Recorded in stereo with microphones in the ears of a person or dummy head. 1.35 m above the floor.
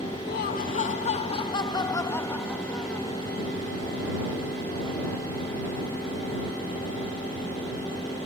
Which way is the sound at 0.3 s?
50° left (ahead or behind).